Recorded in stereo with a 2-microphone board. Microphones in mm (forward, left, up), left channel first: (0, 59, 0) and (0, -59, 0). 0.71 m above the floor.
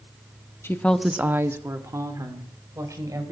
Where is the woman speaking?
20° left (ahead or behind), 0.7 m; by 3.3 s 30° right (ahead or behind), 3.5 m.